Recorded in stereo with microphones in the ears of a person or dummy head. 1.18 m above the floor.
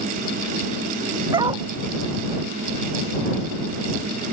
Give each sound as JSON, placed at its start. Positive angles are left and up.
{"t": 1.3, "sound": "a dog barking", "side_deg": -25}